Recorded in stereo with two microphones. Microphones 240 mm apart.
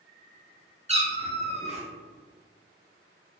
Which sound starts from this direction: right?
A cat meowing, at 0.9 s.